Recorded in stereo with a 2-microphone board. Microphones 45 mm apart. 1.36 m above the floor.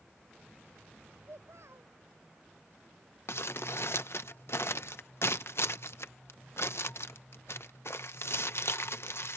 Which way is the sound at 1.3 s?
85° right.